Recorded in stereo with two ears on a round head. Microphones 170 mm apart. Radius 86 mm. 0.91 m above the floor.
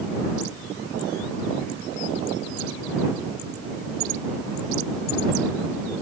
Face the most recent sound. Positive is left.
No sound to turn to.